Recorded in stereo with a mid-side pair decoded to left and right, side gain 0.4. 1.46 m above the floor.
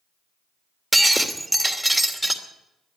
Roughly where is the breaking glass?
Ahead.